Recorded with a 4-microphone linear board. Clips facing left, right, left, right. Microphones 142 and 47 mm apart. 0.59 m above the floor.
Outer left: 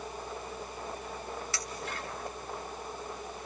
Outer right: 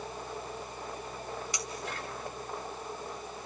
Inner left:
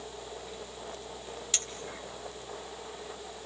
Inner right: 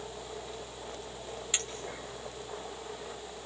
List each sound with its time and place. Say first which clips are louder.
1.5 s a clink: outer right 1 dB, inner right 2 dB; 20° right (ahead or behind), 2.5 m